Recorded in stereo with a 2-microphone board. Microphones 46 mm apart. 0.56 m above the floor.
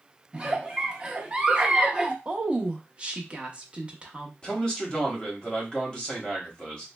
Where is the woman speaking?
25° right (ahead or behind), 0.6 m.